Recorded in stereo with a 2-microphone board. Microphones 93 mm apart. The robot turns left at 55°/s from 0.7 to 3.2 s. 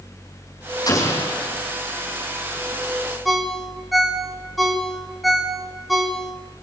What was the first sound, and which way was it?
An explosion, 40° left.